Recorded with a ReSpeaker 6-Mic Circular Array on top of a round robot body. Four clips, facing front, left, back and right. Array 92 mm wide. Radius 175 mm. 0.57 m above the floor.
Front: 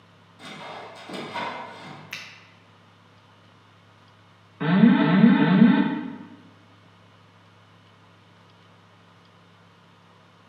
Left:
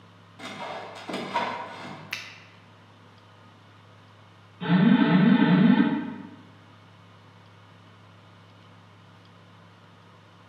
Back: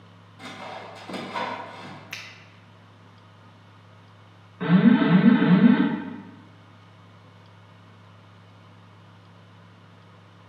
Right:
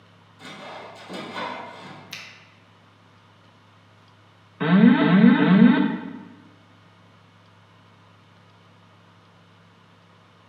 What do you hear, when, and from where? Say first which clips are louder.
0.4 s sawing: left 3 dB, back 1 dB; 100° left, 1.3 m
2.1 s a finger snap: left 3 dB, even; 90° left, 0.9 m
4.6 s an alarm: right 4 dB, even; 80° right, 0.7 m